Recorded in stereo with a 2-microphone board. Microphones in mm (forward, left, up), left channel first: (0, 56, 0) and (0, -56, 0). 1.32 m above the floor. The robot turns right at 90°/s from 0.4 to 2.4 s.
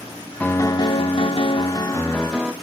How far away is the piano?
About 0.9 m.